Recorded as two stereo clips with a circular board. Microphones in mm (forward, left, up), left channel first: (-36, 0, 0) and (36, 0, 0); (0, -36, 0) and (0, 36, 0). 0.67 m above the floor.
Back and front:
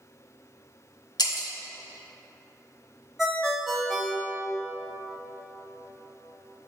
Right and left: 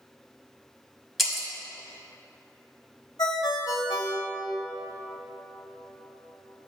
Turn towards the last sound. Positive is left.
turn(degrees=-85)